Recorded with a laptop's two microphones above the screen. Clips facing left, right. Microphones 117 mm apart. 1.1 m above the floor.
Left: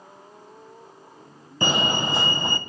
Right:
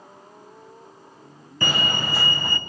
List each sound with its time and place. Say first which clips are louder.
1.6 s a fire alarm: left 3 dB; 20° left (ahead or behind), 1.0 m